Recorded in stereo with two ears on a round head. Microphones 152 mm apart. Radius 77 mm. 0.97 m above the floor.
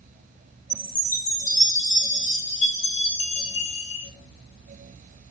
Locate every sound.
0.7 s a chime: 45° left (ahead or behind), 4 m